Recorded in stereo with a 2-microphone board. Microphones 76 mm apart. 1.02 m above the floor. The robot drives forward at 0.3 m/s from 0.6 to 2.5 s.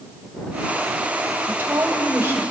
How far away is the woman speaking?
About 4.5 m.